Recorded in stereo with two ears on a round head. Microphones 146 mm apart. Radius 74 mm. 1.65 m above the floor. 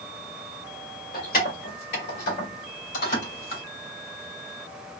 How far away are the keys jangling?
About 2 m.